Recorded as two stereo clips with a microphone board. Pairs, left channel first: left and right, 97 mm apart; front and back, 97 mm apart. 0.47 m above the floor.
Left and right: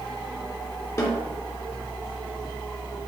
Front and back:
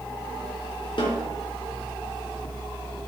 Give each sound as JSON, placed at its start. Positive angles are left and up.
{"t": 1.0, "sound": "a snare drum", "azimuth_deg": 35, "distance_m": 2.5}